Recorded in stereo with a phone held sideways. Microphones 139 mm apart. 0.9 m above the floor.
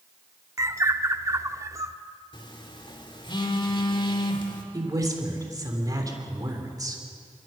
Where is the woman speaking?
25° right (ahead or behind), 3.5 m.